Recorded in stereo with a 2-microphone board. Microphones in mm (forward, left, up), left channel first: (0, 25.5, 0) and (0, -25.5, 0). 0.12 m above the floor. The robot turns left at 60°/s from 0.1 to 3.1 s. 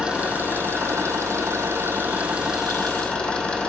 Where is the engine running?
20° right, 2.5 m; by 3.7 s 160° left, 2.5 m.